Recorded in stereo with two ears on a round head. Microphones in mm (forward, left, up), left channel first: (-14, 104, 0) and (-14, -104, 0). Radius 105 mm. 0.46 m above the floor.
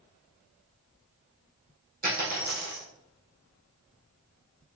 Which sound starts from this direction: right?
A dropped coin, at 2.0 s.